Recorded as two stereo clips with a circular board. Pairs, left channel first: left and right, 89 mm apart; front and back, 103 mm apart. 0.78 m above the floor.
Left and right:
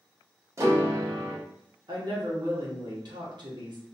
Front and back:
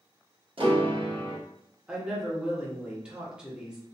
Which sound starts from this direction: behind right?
A piano, at 0.6 s.